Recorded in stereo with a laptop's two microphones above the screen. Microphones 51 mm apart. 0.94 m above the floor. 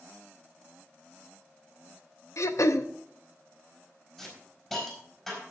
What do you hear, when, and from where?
2.4 s throat clearing: 75° left (ahead or behind), 0.8 m
4.2 s a hiss: 5° left (ahead or behind), 4 m